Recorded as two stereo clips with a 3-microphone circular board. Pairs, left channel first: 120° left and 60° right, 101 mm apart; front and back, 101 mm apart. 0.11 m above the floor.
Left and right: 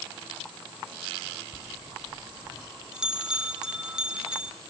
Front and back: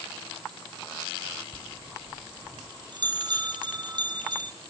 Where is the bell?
140° right, 1.4 m.